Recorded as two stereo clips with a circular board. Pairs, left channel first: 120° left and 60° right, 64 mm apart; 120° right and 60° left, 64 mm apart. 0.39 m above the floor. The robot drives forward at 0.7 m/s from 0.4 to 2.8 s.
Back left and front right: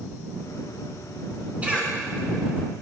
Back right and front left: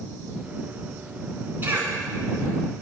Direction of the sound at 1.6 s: 5° left.